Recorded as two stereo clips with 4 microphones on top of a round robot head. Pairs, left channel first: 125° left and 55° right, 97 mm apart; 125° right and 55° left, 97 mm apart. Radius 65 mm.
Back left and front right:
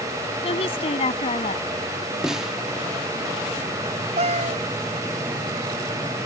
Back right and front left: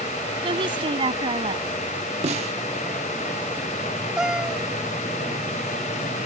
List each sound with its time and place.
0.4 s a woman speaking: 95° left
2.2 s a snare drum: 30° left
4.2 s a cat meowing: 30° right